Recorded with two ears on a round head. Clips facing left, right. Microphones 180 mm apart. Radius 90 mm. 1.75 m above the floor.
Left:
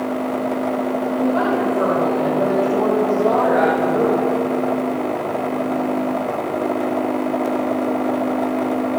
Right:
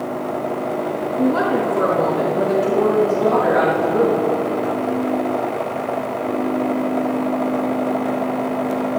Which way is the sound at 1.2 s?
45° right (ahead or behind).